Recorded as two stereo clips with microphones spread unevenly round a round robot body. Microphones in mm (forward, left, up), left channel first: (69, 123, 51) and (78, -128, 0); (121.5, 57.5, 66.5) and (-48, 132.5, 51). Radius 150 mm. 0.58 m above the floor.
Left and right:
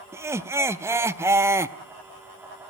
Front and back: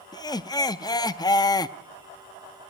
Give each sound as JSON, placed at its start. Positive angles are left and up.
{"t": 0.1, "sound": "laughter", "azimuth_deg": -70, "distance_m": 0.6}